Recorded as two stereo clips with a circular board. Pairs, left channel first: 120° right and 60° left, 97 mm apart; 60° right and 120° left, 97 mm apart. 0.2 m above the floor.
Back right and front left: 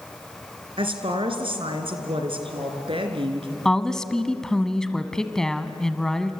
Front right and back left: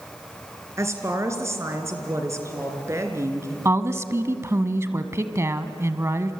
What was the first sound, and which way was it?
A woman speaking, 65° left.